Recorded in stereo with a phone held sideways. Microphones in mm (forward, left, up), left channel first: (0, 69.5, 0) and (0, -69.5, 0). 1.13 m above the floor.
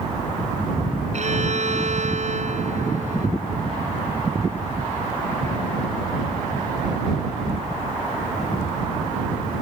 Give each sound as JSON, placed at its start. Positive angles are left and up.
{"t": 1.1, "sound": "a violin", "side_deg": -60}